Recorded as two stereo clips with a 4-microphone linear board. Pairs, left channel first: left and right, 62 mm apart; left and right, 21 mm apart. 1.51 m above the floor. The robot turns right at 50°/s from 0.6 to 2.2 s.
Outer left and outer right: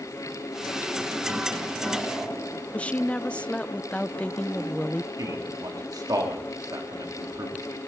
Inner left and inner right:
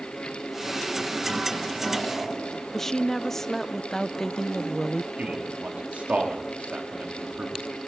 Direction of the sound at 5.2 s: 90° right.